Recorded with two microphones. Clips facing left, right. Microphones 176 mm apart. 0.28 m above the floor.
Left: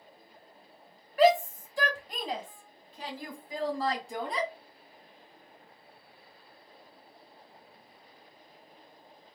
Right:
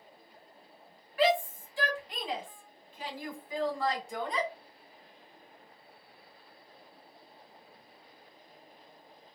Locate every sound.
1.2 s a shout: 45° left (ahead or behind), 1.4 m; by 4.5 s 35° left (ahead or behind), 2.5 m